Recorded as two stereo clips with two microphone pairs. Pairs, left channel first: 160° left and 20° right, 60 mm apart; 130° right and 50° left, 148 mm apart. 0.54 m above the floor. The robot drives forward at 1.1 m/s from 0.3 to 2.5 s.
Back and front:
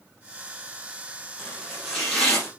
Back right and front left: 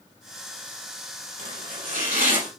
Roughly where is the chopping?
Ahead left.